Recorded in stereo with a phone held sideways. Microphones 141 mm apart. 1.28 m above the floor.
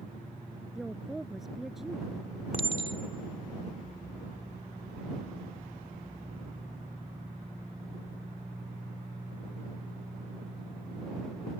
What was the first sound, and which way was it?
A woman speaking, centre (ahead or behind).